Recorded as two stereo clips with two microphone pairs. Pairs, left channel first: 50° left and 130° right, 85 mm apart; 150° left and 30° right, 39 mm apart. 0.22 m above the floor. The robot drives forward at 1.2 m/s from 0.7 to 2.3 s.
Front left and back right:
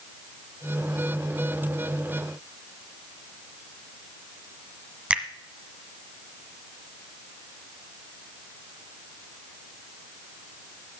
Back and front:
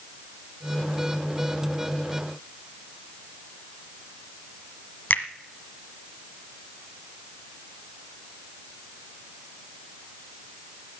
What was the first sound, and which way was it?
A finger snap, 165° left.